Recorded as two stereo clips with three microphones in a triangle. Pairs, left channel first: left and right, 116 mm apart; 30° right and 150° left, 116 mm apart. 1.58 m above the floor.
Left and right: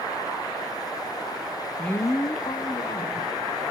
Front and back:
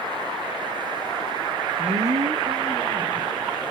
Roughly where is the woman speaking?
Behind.